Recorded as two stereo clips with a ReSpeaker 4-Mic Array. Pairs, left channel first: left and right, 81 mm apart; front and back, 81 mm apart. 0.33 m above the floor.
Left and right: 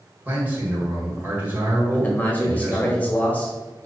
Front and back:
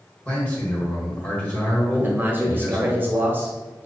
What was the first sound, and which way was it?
A man speaking, 55° right.